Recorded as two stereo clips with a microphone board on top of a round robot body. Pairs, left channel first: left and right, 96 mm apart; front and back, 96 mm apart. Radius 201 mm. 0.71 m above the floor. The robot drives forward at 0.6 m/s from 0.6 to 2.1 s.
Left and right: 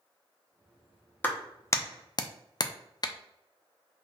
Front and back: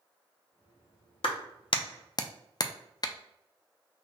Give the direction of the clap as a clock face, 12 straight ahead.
11 o'clock.